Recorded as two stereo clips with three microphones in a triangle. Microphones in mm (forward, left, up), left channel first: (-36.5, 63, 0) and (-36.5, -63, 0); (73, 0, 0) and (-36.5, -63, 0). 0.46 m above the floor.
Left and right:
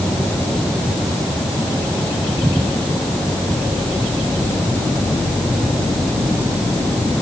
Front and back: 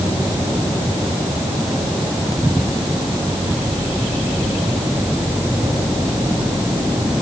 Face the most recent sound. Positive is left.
No sound to turn to.